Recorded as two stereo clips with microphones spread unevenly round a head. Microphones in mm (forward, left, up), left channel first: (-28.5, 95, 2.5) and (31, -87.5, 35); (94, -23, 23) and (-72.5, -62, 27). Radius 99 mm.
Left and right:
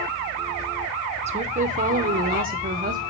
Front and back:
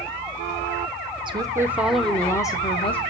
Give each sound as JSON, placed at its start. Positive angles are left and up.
{"t": 1.3, "sound": "a woman speaking", "azimuth_deg": -120, "distance_m": 0.8}